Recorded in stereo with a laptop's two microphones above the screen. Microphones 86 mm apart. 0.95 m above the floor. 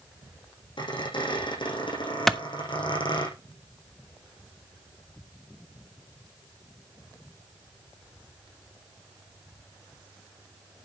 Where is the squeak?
70° left (ahead or behind), 6.5 m.